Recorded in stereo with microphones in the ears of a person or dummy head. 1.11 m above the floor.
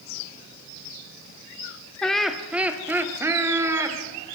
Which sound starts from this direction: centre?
Laughter, at 2.0 s.